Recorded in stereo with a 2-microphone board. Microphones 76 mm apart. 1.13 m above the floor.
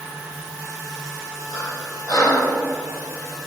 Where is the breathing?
65° left (ahead or behind), 6 m.